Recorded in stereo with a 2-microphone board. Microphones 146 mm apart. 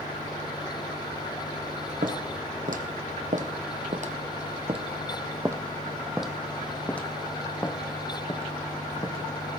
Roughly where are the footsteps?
Right.